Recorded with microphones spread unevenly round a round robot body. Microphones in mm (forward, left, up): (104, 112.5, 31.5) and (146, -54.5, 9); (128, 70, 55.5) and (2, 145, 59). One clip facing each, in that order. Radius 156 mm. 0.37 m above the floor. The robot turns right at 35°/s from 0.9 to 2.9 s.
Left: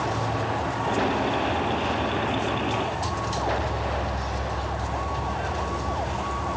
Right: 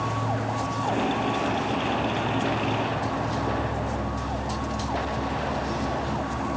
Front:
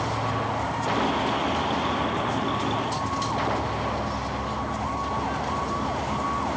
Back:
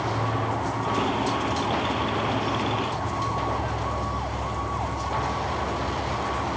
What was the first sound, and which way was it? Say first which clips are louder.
An insect: left 1 dB, even; 155° left.